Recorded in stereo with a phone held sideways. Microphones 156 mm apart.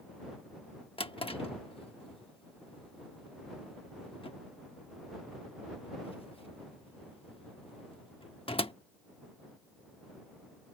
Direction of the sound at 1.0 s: 35° left (ahead or behind).